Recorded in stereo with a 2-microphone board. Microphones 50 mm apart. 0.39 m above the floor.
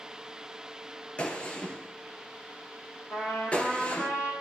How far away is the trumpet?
About 5.5 m.